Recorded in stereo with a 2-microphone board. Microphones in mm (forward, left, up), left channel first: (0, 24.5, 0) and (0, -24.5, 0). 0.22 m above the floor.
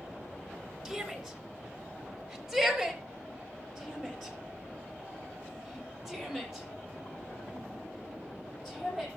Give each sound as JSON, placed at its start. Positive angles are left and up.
{"t": 0.8, "sound": "a shout", "side_deg": -10, "distance_m": 3.5}